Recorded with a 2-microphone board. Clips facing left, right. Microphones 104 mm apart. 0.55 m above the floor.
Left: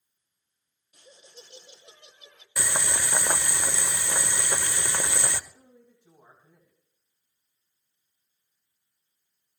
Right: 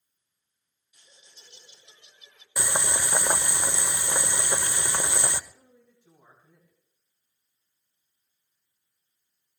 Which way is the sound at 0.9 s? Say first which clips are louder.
Left 9 dB; 60° left (ahead or behind).